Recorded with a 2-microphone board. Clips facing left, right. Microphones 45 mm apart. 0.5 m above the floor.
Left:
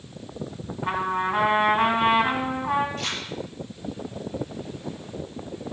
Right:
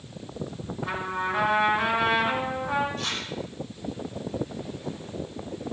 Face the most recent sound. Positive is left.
turn(degrees=45)  # may be behind; listen again after turning